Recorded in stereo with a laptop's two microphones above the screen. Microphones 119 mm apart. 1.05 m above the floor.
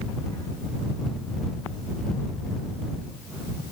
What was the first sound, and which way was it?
Only background noise.